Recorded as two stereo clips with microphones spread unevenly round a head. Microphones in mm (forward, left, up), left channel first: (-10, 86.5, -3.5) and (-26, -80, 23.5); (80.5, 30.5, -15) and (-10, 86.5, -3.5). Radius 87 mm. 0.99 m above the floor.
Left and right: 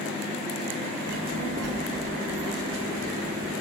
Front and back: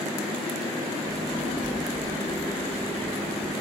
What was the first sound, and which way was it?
A child speaking, 90° right.